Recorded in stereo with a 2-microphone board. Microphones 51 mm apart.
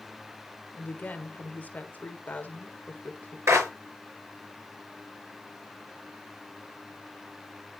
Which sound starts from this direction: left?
A woman speaking, at 0.7 s.